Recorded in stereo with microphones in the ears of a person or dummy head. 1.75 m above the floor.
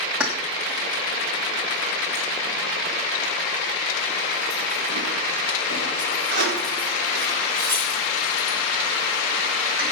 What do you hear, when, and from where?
0.2 s keys jangling: 5° right (ahead or behind), 2.5 m; by 9.9 s 70° right (ahead or behind), 5.5 m